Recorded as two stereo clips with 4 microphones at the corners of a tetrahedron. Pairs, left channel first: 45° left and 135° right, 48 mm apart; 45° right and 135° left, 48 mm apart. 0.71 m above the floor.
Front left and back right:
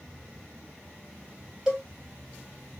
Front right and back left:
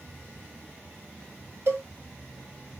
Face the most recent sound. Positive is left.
turn(degrees=150)